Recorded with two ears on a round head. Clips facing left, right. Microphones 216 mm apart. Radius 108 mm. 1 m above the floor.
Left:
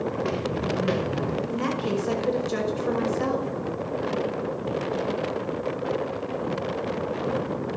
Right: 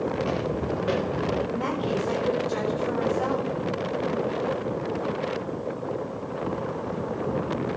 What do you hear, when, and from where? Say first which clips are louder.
0.1 s footsteps: even; 35° left (ahead or behind), 5 m; by 1.4 s 45° left (ahead or behind), 3.5 m
1.5 s a woman speaking: left 1 dB; 50° left (ahead or behind), 5.5 m